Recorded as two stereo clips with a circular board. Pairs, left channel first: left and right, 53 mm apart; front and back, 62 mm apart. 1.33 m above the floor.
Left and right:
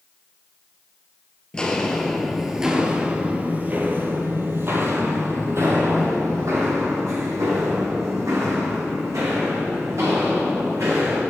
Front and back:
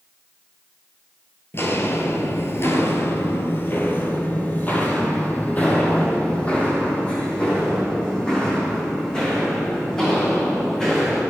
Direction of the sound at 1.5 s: 25° left.